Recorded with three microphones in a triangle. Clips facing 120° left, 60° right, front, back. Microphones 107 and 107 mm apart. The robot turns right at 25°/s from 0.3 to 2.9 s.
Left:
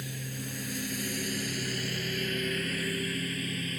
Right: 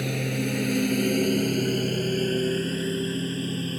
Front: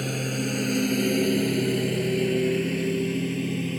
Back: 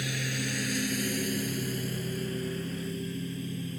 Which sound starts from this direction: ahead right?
A lawn mower, at 0.0 s.